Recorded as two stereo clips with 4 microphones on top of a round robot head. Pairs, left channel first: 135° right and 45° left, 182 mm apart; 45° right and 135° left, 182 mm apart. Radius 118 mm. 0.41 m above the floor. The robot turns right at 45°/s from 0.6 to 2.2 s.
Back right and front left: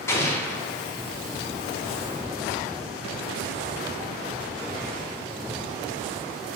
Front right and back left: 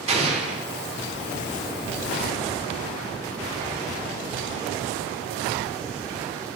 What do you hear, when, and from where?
0.1 s an explosion: 160° left, 1.1 m